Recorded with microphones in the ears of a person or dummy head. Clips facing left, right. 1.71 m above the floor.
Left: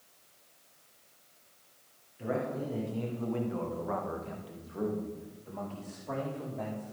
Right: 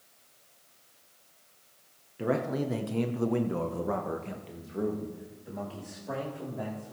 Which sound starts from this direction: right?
A man speaking, at 2.2 s.